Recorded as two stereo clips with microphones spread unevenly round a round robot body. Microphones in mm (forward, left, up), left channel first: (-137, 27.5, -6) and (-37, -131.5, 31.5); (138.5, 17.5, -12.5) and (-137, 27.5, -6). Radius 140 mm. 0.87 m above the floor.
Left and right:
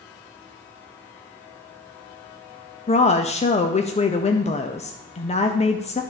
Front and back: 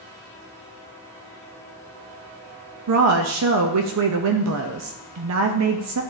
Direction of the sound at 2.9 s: 160° left.